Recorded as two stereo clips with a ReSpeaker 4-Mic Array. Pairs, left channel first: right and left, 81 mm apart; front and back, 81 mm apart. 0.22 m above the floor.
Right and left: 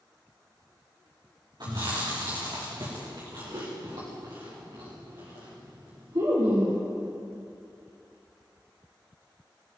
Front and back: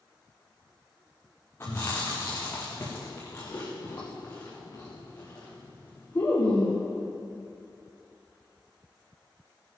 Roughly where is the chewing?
Ahead left.